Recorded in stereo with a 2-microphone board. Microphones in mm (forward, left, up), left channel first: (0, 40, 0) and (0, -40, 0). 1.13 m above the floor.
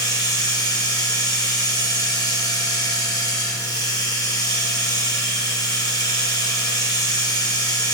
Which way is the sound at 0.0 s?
55° left (ahead or behind).